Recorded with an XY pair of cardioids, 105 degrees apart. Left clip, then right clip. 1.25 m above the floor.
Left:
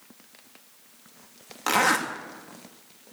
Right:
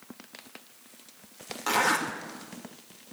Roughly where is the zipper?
Ahead left.